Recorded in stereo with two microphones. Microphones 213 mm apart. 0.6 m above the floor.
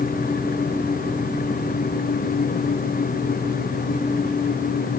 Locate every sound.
Only background noise.